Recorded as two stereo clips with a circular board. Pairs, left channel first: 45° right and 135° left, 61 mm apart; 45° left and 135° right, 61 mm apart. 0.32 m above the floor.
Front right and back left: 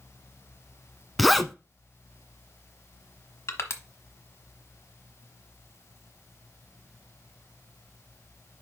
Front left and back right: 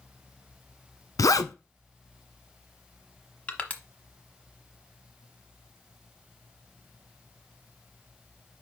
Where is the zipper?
45° left, 0.6 m.